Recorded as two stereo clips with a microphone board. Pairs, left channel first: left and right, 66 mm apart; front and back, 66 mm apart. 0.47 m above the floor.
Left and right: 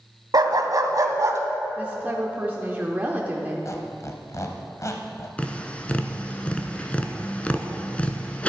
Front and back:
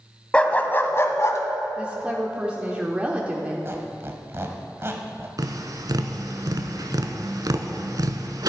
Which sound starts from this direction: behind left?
A squeak, at 3.6 s.